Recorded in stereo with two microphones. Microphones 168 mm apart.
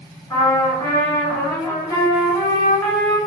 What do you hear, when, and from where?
0.3 s a trumpet: 15° left (ahead or behind), 1.4 m